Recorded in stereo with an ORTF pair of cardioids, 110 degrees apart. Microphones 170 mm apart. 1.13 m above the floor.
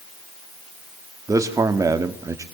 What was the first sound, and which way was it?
A man speaking, 20° right.